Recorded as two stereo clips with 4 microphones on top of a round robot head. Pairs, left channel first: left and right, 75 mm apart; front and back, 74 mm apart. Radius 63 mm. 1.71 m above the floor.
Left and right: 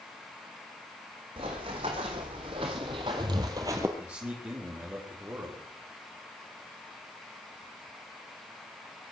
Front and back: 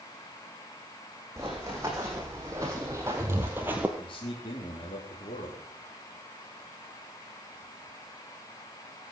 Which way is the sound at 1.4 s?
110° right.